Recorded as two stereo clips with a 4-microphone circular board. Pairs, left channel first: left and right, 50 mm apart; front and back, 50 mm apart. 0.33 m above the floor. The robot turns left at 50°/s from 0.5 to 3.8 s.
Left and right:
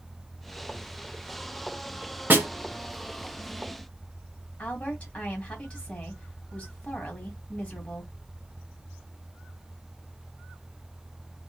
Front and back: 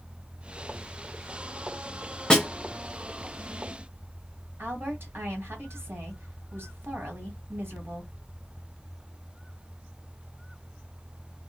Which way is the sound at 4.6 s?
150° left.